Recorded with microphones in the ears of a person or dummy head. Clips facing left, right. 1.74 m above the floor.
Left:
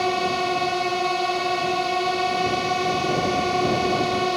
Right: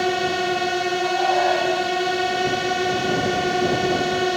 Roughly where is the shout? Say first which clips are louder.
Right 4 dB; right.